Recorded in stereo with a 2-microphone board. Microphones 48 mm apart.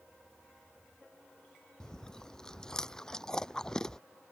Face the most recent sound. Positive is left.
turn(degrees=15)  # may be behind; listen again after turning